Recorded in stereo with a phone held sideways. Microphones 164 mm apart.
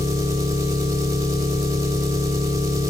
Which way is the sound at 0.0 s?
20° right (ahead or behind).